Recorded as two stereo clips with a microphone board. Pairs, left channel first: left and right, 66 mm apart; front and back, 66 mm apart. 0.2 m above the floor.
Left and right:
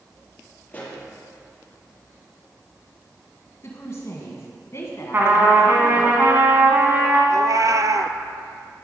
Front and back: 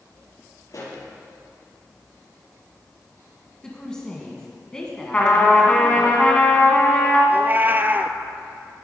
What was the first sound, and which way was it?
A pop, 25° left.